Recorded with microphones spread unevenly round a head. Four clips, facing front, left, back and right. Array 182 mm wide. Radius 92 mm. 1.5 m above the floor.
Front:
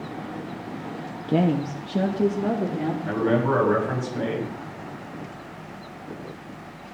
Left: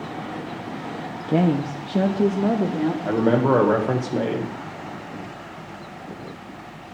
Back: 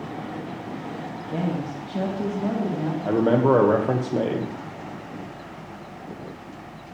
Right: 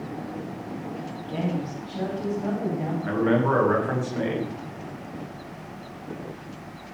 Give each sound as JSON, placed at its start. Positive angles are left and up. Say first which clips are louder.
{"t": 1.3, "sound": "a woman speaking", "louder": "left 9 dB, front 6 dB", "azimuth_deg": 45, "distance_m": 0.8}
{"t": 3.0, "sound": "a man speaking", "louder": "left 2 dB, back 5 dB", "azimuth_deg": 145, "distance_m": 2.0}